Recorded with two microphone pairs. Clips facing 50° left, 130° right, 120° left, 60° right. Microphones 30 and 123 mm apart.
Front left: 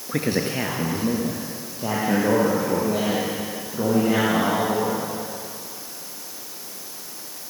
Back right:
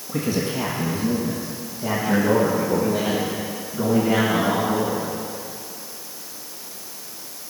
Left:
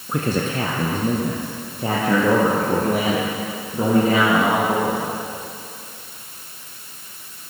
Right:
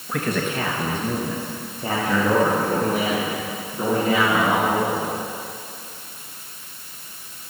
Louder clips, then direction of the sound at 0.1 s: Even, left 2 dB; 65° left.